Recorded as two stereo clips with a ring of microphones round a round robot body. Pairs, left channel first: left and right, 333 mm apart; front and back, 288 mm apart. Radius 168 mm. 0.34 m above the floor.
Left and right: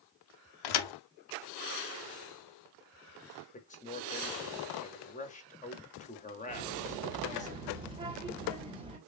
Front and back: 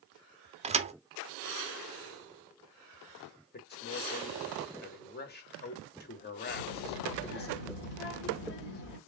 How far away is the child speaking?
About 1.2 m.